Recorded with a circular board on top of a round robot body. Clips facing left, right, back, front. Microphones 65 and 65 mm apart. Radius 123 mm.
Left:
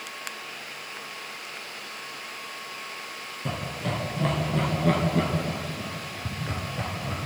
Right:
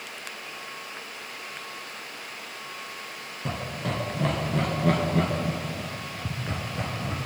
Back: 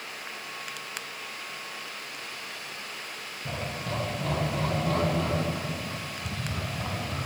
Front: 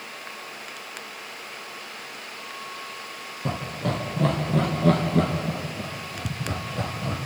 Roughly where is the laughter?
Ahead.